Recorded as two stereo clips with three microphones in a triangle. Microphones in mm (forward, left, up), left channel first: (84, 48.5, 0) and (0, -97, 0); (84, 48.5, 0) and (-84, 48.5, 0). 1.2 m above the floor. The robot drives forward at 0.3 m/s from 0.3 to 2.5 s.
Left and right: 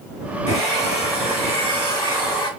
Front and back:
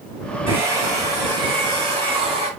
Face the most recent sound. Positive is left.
turn(degrees=125)